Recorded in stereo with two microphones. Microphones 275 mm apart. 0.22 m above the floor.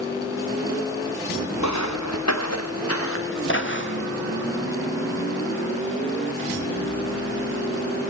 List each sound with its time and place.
1.6 s footsteps: 85° left, 2 m; by 4.1 s 40° left (ahead or behind), 3.5 m